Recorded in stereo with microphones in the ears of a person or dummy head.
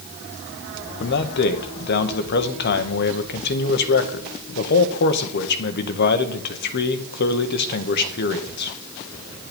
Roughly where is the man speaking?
Left.